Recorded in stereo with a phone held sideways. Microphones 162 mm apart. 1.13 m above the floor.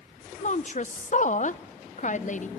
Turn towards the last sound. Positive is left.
turn(degrees=50)  # may be behind; listen again after turning